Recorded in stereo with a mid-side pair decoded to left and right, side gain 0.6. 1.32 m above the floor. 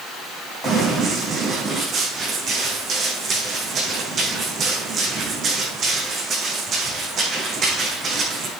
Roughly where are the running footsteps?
Ahead right.